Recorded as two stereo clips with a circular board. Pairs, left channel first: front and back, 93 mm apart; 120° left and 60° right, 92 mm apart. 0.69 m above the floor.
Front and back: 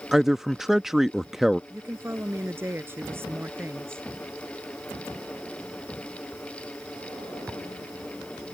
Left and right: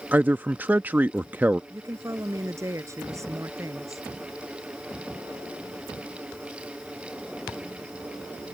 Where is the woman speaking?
115° right.